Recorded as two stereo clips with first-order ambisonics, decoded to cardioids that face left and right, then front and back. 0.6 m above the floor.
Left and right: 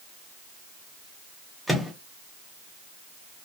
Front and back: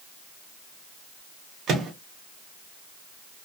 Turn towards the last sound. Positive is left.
turn(degrees=-175)